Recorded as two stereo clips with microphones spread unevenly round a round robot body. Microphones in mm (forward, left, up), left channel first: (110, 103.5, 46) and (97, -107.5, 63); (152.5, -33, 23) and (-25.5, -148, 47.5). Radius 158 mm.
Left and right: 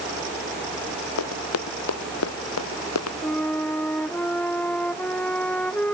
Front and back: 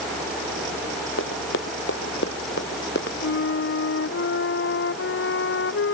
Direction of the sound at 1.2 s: 85° left.